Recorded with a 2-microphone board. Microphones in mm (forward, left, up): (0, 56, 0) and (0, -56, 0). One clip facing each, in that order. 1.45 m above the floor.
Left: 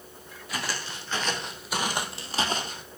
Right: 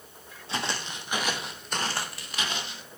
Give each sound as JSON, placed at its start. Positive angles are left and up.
{"t": 0.5, "sound": "footsteps", "side_deg": -30, "distance_m": 3.0}